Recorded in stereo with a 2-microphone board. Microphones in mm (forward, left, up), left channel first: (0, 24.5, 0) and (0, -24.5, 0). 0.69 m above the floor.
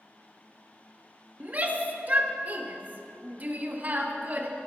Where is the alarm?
No alarm in this recording.